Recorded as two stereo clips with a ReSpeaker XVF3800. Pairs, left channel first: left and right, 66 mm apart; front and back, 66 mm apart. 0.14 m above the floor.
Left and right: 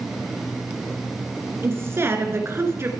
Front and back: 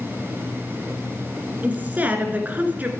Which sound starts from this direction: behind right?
A woman speaking, at 1.6 s.